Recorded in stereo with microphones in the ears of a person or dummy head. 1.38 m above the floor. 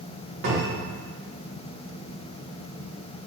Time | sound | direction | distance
0.4 | a cupboard door | 65° right (ahead or behind) | 1.2 m